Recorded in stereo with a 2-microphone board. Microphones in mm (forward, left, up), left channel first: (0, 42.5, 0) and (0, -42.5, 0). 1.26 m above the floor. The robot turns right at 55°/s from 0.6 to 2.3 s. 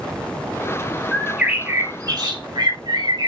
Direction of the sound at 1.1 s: 175° left.